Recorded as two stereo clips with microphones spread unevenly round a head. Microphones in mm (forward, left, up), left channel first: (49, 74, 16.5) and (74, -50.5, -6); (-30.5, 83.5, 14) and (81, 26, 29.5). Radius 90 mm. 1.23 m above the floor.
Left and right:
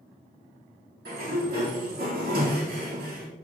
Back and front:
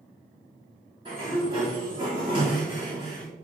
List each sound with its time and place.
1.1 s a sliding door: 90° right, 4 m